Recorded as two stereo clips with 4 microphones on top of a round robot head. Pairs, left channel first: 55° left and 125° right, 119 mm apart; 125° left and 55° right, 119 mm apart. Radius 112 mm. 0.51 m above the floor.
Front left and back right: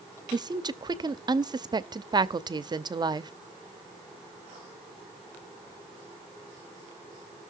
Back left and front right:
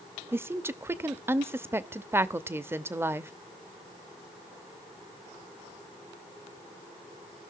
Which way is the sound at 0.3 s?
110° right.